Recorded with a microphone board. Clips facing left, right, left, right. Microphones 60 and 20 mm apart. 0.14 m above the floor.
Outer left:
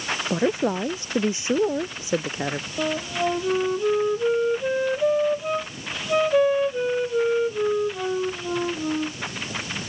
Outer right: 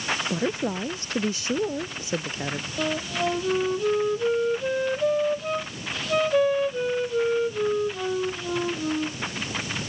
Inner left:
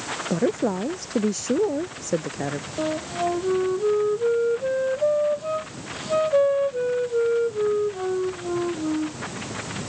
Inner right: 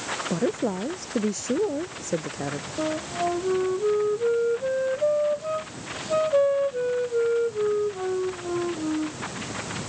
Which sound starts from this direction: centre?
A flute, at 2.8 s.